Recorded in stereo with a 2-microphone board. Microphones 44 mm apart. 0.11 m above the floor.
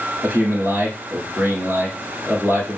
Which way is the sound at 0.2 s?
25° right (ahead or behind).